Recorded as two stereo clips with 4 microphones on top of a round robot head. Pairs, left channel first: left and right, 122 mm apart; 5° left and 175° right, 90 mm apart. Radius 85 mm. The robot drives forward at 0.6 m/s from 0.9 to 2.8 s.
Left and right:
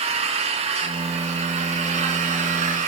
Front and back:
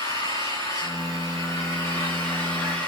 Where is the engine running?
60° right, 4.5 m; by 2.9 s 75° right, 4 m.